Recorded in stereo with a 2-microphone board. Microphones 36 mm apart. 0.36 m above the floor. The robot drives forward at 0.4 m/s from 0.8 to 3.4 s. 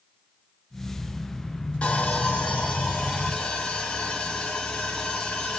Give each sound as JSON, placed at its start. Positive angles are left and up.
{"t": 1.8, "sound": "sawing", "side_deg": 35, "distance_m": 1.9}